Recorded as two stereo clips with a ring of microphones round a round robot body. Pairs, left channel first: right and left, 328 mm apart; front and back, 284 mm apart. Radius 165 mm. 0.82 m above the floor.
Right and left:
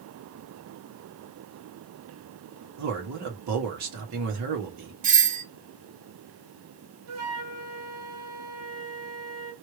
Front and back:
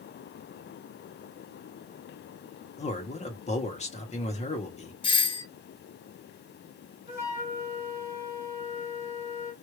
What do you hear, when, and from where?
2.8 s a man speaking: 65° left, 1.6 m
5.0 s a doorbell: 55° left, 0.9 m
7.1 s a flute: 100° left, 2 m